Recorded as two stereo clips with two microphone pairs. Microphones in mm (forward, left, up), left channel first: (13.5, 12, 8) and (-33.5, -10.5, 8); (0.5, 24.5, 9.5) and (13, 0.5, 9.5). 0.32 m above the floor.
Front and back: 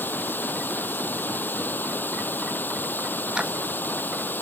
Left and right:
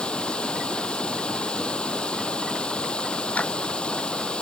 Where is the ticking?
135° left.